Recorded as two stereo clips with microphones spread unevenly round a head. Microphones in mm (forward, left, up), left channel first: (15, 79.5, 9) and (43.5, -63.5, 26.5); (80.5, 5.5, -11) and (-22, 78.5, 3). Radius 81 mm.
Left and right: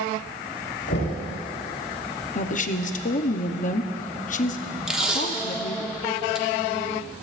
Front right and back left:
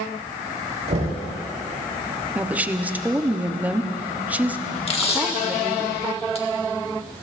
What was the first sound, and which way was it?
Knocking, 115° left.